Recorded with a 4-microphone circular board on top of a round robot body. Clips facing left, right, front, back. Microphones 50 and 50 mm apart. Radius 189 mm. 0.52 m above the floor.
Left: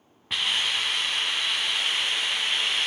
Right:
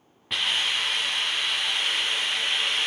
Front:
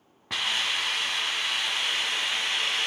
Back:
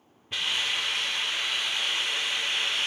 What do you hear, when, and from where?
0.3 s a hiss: straight ahead, 1.7 m